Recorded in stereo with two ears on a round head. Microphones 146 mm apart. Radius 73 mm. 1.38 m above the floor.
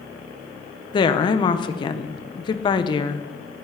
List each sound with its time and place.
0.9 s a woman speaking: 30° left (ahead or behind), 0.9 m